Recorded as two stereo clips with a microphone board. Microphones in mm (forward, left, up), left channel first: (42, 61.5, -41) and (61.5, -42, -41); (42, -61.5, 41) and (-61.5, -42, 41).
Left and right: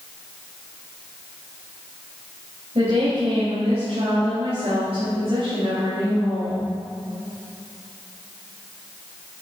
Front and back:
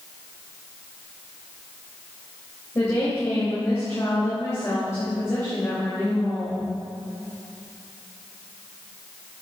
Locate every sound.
2.8 s a woman speaking: 70° right, 3 m